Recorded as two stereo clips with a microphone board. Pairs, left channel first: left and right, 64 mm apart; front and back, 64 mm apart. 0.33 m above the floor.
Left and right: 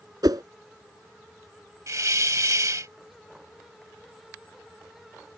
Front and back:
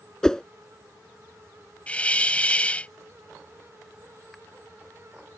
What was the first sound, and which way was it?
A whoosh, 80° right.